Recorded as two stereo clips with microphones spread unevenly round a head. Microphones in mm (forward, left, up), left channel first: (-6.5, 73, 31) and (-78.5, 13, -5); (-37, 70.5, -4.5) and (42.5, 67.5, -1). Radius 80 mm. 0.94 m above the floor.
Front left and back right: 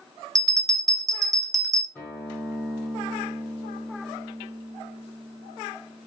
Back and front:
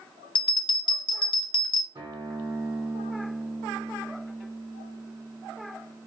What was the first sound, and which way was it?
A bell, 160° left.